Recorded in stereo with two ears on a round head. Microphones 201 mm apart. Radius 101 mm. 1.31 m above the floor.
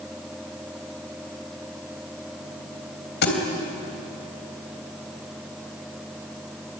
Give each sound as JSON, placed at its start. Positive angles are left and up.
{"t": 3.2, "sound": "a thud", "side_deg": 50, "distance_m": 3.0}